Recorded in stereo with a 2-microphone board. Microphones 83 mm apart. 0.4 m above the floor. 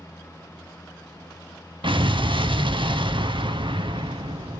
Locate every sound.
1.8 s an explosion: 80° right, 0.7 m